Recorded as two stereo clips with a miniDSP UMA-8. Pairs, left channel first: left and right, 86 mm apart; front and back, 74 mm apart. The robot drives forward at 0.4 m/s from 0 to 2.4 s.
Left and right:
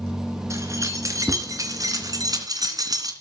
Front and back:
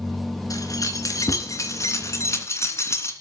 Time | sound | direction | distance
0.5 | keys jangling | 35° right | 3 m